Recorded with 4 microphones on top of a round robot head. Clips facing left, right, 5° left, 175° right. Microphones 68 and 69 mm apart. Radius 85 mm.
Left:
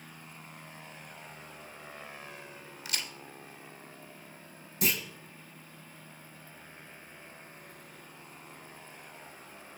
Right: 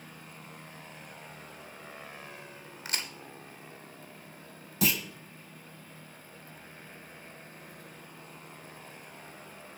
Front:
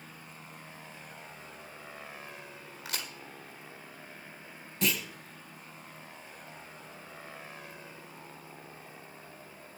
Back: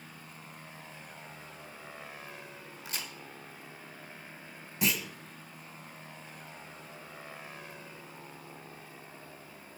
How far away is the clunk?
About 1.3 m.